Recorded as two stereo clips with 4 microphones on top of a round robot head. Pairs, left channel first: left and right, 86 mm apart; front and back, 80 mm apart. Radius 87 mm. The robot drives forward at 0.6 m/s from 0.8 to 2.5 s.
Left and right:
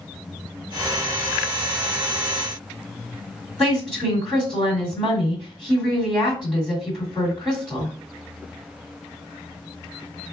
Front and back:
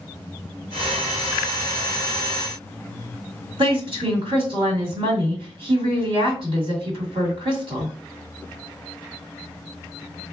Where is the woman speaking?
175° right, 2 m.